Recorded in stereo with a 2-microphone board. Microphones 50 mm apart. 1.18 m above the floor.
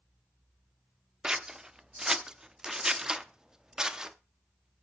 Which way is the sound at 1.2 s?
10° right (ahead or behind).